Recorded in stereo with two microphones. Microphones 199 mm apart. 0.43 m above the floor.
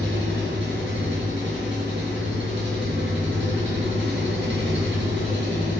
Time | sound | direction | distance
0.0 | an engine running | 65° right (ahead or behind) | 3.5 m